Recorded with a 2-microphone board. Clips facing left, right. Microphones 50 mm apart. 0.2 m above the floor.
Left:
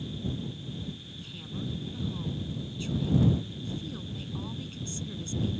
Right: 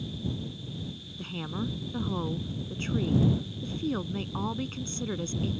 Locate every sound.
1.2 s a woman speaking: 50° right (ahead or behind)